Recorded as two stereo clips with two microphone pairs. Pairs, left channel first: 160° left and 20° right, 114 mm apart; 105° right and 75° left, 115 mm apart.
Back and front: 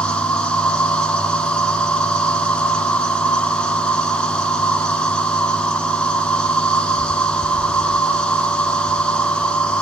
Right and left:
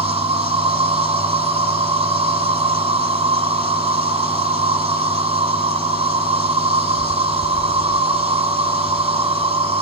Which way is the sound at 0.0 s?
80° left.